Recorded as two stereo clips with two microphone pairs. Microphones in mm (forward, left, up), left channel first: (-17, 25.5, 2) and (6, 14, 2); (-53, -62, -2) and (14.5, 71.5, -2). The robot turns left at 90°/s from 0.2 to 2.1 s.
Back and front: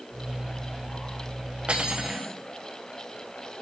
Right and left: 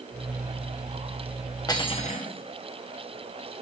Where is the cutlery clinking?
60° right, 1.1 m; by 2.3 s 95° right, 1.1 m.